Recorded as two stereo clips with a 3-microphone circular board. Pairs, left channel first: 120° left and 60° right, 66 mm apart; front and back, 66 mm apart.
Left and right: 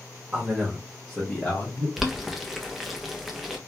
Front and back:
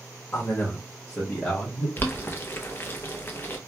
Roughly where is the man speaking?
Ahead.